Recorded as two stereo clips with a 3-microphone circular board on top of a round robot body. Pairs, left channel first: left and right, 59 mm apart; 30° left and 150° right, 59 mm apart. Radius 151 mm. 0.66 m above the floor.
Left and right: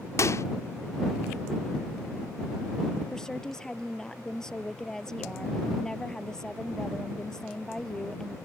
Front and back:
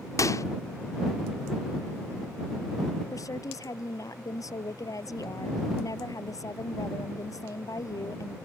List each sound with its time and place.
0.2 s a microwave: 55° left
3.1 s a woman speaking: 10° left